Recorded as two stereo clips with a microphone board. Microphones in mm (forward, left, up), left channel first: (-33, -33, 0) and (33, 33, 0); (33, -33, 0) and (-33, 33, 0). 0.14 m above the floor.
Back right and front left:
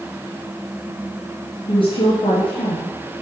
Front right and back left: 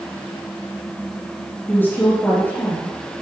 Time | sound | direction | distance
1.7 | a woman speaking | 110° right | 3 m